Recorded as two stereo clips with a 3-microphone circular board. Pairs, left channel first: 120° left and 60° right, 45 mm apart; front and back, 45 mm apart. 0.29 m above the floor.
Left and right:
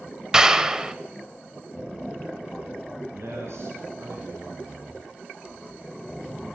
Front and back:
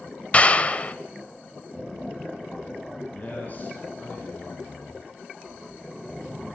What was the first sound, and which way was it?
A clap, straight ahead.